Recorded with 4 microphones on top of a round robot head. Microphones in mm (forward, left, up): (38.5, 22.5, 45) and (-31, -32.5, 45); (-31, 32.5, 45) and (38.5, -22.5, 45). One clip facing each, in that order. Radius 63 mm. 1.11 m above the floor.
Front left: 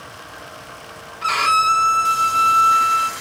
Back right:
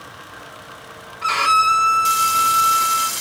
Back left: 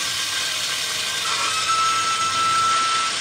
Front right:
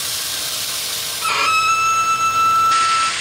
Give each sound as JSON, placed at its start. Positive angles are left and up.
{"t": 1.2, "sound": "a violin", "azimuth_deg": -50, "distance_m": 1.4}